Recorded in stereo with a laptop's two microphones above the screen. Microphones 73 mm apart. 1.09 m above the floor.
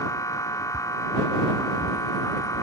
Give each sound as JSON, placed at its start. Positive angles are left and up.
{"t": 0.0, "sound": "a machine running", "side_deg": 45}